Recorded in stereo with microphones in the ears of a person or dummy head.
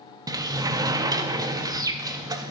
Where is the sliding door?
25° right (ahead or behind), 0.6 m.